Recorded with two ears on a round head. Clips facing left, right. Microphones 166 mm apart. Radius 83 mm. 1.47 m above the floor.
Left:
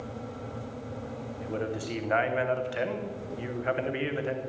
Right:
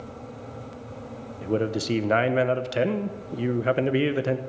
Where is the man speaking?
50° right (ahead or behind), 1.0 m.